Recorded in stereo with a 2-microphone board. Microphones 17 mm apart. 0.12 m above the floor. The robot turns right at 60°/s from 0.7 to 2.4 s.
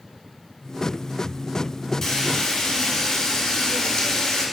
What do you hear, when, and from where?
2.0 s frying: 25° left (ahead or behind), 1.7 m; by 4.5 s 45° left (ahead or behind), 1.7 m